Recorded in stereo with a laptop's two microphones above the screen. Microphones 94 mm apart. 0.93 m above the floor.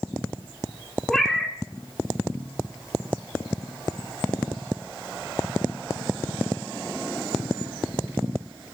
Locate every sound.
1.1 s a cat meowing: 5° left (ahead or behind), 1.3 m